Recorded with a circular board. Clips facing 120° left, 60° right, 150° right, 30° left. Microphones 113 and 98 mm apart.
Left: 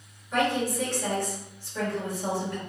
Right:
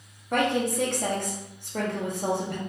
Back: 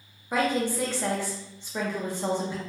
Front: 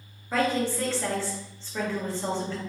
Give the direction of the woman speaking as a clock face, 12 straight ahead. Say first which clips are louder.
Right 1 dB, even; 3 o'clock.